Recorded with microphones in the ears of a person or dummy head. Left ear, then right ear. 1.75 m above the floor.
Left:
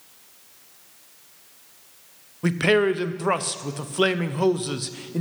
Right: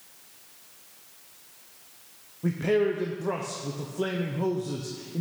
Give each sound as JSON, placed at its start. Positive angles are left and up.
{"t": 2.4, "sound": "a man speaking", "side_deg": 50, "distance_m": 0.6}